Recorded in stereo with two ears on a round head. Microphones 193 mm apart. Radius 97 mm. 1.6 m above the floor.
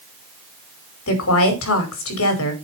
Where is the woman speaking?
75° left (ahead or behind), 5 m.